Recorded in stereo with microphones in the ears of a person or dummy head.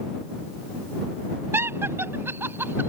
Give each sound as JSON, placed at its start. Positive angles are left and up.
{"t": 1.5, "sound": "laughter", "side_deg": -15}